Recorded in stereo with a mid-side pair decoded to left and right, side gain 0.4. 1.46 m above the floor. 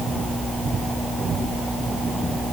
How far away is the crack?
I don't hear a crack.